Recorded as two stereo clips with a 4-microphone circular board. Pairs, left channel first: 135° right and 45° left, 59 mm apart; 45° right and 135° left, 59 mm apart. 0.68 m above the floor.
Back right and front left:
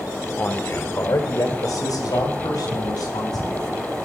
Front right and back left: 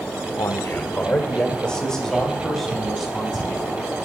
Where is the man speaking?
75° right, 1.6 m; by 3.8 s 140° right, 6 m.